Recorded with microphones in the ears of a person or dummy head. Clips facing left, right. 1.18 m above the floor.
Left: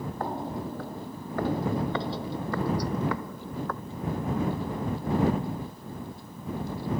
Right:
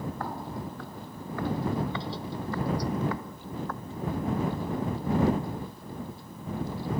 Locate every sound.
0.2 s footsteps: 25° left (ahead or behind); by 3.8 s 65° left (ahead or behind)